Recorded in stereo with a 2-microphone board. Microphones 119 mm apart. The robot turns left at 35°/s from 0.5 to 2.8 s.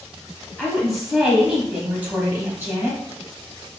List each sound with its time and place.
0.6 s a woman speaking: 5° left (ahead or behind), 1.0 m; by 3.0 s 20° right (ahead or behind), 1.0 m